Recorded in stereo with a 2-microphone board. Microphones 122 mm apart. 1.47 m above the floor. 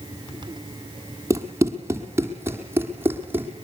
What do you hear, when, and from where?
1.3 s running footsteps: 25° right (ahead or behind), 2.5 m; by 3.5 s 15° right (ahead or behind), 3.5 m